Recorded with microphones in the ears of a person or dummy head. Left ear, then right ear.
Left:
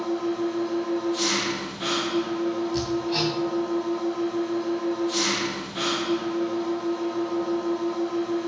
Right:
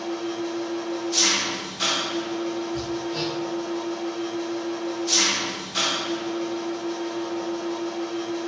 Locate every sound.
0.0 s an engine running: 75° right (ahead or behind), 1.4 m
2.7 s hammering: 55° left (ahead or behind), 3 m